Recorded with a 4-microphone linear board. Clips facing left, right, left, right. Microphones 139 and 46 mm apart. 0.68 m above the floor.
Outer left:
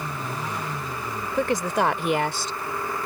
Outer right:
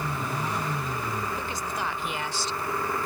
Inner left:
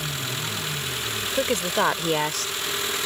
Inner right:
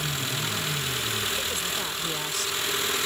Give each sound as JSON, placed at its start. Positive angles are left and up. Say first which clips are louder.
{"t": 1.3, "sound": "a woman speaking", "louder": "outer left 9 dB, inner left 7 dB", "side_deg": 75}